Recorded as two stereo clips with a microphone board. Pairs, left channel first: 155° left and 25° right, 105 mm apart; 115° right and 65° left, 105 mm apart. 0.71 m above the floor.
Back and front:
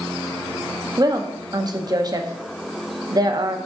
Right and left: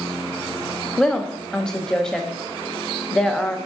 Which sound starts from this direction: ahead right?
A woman speaking, at 1.0 s.